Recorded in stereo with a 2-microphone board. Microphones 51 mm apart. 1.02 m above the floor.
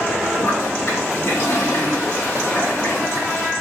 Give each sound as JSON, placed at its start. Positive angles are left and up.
{"t": 0.4, "sound": "a toilet flushing", "side_deg": 60, "distance_m": 1.4}